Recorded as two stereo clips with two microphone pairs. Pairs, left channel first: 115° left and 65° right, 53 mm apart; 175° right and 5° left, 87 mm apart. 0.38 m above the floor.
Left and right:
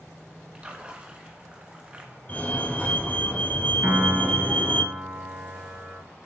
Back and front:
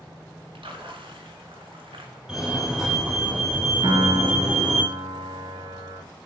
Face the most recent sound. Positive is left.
turn(degrees=0)